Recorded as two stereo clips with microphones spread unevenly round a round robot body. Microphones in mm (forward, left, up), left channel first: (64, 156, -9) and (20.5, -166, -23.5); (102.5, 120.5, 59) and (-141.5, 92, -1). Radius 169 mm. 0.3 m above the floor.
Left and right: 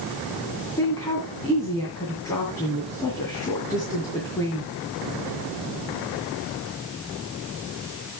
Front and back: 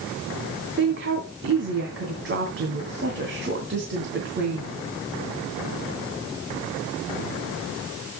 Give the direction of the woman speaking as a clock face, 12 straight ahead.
7 o'clock.